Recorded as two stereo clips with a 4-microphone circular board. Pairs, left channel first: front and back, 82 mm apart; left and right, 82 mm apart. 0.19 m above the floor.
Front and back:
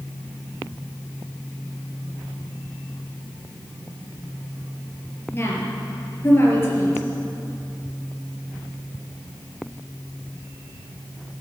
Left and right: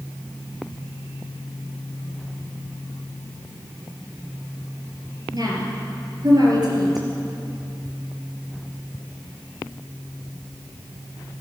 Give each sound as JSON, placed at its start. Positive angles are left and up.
{"t": 5.3, "sound": "a woman speaking", "azimuth_deg": -60, "distance_m": 4.0}